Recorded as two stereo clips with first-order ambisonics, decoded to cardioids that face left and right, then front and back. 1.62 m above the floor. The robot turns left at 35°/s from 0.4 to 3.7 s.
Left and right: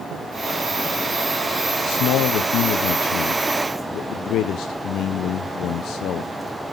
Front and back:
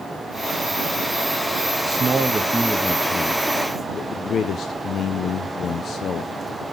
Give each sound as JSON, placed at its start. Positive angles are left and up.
{"t": 1.9, "sound": "a man speaking", "azimuth_deg": 120, "distance_m": 0.6}